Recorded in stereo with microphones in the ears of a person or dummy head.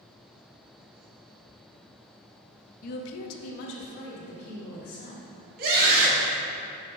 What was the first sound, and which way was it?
A woman speaking, 40° left (ahead or behind).